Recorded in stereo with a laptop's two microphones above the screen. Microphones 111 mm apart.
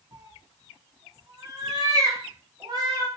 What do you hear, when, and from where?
0.1 s a cat meowing: 35° right (ahead or behind), 0.6 m